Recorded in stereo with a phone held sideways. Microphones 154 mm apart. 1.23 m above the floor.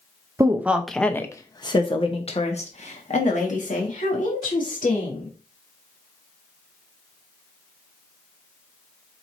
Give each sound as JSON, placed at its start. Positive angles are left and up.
{"t": 0.4, "sound": "a woman speaking", "side_deg": -20, "distance_m": 0.7}